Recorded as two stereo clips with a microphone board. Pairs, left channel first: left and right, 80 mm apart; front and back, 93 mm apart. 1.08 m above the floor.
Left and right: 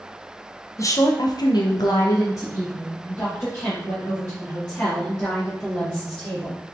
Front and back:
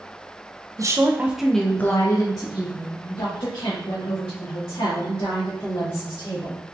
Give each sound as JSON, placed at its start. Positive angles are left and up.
{"t": 0.8, "sound": "a woman speaking", "azimuth_deg": 130, "distance_m": 0.6}